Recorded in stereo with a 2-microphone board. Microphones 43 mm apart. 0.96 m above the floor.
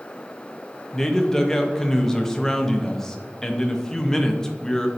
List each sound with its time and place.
0.9 s a man speaking: 10° left (ahead or behind), 0.7 m